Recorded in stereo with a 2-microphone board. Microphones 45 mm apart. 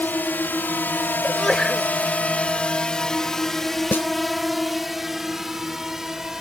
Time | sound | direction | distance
0.0 | a drone | 45° left (ahead or behind) | ?
1.2 | a sneeze | 10° left (ahead or behind) | ?
3.9 | a snare drum | 55° left (ahead or behind) | ?